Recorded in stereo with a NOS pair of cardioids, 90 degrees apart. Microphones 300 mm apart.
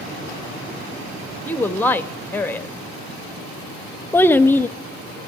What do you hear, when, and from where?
1.4 s a woman speaking: 5° left, 1.2 m
4.1 s a child speaking: 5° left, 0.5 m